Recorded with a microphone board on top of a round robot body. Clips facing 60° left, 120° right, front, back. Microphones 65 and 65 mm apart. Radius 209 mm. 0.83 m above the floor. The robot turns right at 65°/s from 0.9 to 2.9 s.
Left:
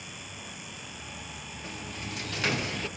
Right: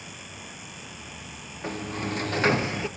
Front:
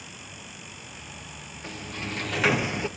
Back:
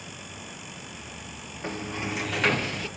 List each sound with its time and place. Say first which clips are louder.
1.6 s a sliding door: right 10 dB, back 4 dB; 135° right, 1.2 m; by 2.9 s 55° right, 1.2 m